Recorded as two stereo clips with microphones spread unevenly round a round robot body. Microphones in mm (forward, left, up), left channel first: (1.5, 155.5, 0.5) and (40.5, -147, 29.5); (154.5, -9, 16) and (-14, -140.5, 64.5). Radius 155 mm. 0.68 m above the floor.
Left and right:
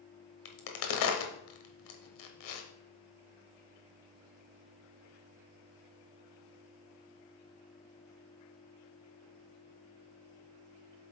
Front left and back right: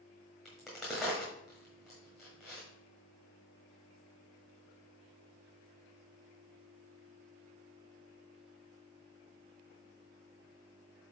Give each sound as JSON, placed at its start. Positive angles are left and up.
{"t": 0.5, "sound": "a crack", "azimuth_deg": 130, "distance_m": 1.1}